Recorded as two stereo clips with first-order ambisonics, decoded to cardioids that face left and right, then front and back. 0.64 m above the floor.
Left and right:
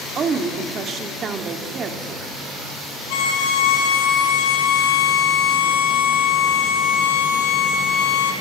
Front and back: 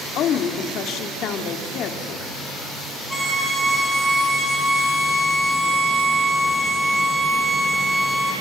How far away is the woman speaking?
About 1.6 m.